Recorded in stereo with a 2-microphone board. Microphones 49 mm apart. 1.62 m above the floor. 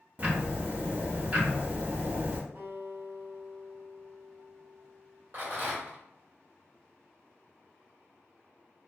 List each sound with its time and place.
0.2 s ticking: 35° right (ahead or behind), 0.7 m
2.5 s a guitar: 40° right (ahead or behind), 1.9 m
5.3 s a rattle: 50° right (ahead or behind), 1.4 m